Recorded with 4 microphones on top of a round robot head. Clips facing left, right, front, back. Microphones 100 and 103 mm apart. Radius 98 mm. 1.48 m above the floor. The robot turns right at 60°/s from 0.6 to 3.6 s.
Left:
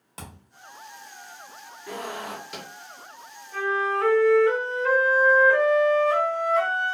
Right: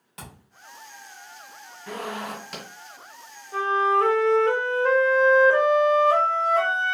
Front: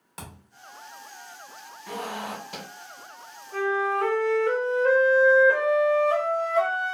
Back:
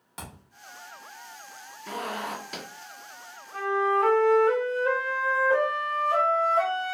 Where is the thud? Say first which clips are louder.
Left 1 dB, even; 85° left, 0.9 m.